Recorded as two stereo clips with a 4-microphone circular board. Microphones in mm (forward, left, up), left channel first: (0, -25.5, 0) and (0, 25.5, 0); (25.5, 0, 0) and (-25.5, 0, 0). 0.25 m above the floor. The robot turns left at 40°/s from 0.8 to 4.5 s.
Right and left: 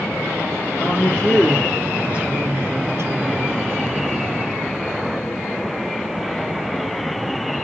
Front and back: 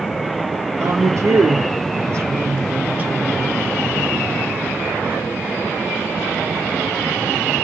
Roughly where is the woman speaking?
Behind right.